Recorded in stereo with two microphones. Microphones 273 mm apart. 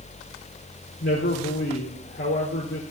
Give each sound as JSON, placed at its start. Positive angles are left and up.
{"t": 1.0, "sound": "a man speaking", "side_deg": 45, "distance_m": 4.0}